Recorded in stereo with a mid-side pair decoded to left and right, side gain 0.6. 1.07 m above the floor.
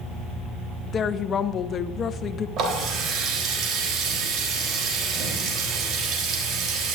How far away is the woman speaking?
About 0.7 m.